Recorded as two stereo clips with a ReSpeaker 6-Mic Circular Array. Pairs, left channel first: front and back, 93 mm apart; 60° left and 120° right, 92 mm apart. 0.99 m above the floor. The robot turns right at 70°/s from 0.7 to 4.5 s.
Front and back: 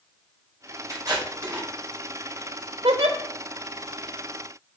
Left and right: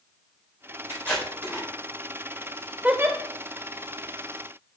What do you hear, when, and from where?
0.9 s tape being pulled: 125° left, 4 m; by 1.7 s straight behind, 4 m
2.8 s a giggle: 165° left, 1.1 m; by 3.2 s 175° right, 1.1 m